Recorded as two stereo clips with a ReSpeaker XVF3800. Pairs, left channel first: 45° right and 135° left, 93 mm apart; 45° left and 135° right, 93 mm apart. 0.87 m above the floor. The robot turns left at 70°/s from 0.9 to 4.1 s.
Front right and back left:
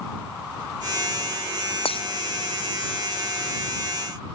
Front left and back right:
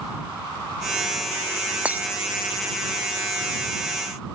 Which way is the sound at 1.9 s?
60° right.